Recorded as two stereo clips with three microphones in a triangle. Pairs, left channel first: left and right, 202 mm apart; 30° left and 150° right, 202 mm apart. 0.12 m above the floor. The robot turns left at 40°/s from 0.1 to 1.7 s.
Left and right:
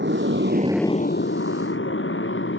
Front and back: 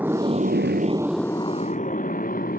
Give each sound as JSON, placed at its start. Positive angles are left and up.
{"t": 0.0, "sound": "a motorcycle", "azimuth_deg": -70}